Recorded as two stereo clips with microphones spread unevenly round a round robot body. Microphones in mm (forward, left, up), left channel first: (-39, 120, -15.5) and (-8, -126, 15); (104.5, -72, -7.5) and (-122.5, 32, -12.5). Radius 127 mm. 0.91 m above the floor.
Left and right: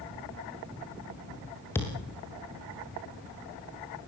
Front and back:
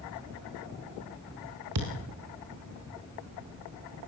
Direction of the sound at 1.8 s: Straight behind.